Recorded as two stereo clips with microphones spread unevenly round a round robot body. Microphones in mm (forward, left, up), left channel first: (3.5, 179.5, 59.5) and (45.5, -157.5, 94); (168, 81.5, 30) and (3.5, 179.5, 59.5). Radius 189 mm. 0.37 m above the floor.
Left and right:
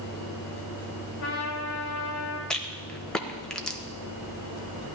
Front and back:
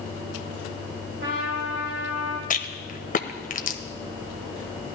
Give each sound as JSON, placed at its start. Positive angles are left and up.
{"t": 1.2, "sound": "a trumpet", "azimuth_deg": 140, "distance_m": 3.0}
{"t": 2.5, "sound": "a rattle", "azimuth_deg": 10, "distance_m": 1.0}